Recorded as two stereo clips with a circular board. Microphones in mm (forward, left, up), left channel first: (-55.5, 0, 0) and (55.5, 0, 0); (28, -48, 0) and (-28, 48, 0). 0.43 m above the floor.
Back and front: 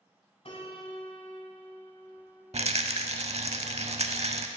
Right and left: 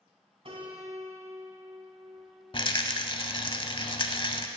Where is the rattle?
20° right, 0.6 m.